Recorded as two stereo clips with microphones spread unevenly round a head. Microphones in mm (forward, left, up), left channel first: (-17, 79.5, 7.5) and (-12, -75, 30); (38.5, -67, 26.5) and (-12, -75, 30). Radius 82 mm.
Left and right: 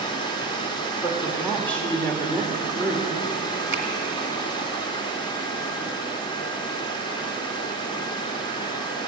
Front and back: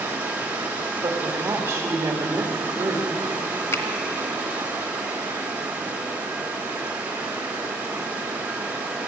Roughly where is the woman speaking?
Behind.